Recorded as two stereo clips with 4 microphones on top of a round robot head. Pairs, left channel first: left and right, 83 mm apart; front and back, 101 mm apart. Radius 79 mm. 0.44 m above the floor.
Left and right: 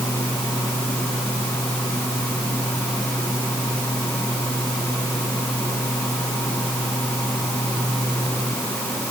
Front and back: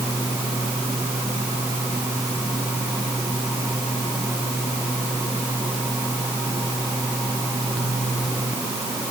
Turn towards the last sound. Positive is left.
No sound to turn to.